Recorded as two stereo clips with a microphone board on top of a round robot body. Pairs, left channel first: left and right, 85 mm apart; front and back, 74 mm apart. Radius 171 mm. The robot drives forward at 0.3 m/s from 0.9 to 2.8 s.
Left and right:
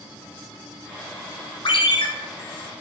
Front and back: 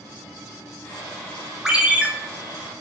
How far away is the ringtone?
About 0.6 m.